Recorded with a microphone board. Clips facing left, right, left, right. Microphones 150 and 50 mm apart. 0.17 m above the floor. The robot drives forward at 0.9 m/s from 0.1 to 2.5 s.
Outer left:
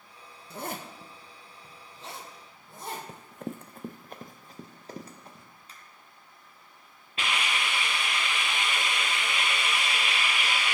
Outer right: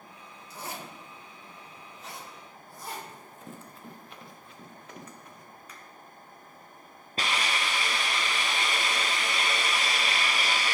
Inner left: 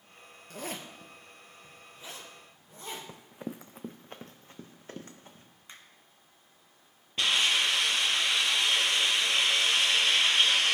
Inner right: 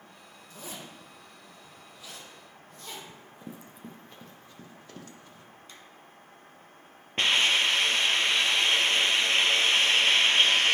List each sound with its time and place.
0.5 s a zipper: 65° left (ahead or behind), 1.1 m; by 3.0 s 25° left (ahead or behind), 2.5 m
3.1 s running footsteps: 75° left (ahead or behind), 0.5 m; by 5.5 s 30° left (ahead or behind), 1.5 m
5.7 s a finger snap: 30° left (ahead or behind), 1.5 m
7.2 s a hiss: 40° right (ahead or behind), 1.0 m